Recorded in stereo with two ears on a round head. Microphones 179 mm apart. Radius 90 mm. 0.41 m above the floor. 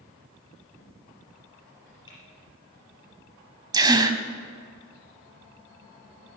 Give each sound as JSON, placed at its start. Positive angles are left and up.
{"t": 2.1, "sound": "typing on a keyboard", "side_deg": 20, "distance_m": 5.0}
{"t": 3.7, "sound": "a gasp", "side_deg": -20, "distance_m": 1.2}